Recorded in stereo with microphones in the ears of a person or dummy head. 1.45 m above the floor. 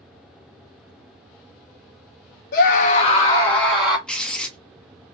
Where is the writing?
Centre (ahead or behind), 0.9 m.